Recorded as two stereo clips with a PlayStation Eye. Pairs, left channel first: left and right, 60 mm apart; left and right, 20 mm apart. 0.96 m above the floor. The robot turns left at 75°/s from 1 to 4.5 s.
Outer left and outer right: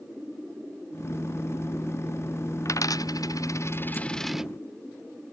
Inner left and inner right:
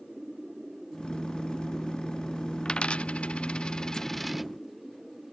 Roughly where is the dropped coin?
Left.